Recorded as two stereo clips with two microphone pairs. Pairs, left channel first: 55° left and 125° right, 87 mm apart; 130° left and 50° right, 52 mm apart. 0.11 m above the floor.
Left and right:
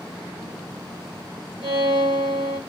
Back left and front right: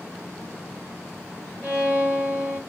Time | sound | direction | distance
1.6 | a violin | 120° right | 1.1 m